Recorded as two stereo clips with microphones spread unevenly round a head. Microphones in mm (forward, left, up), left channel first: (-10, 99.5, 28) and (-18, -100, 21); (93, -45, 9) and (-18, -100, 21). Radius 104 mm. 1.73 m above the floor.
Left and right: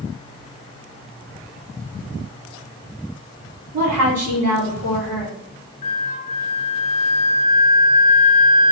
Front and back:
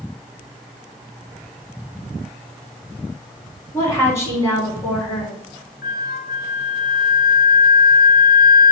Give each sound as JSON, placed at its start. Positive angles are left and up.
{"t": 3.7, "sound": "a woman speaking", "azimuth_deg": -40, "distance_m": 4.5}
{"t": 5.8, "sound": "a flute", "azimuth_deg": 30, "distance_m": 0.8}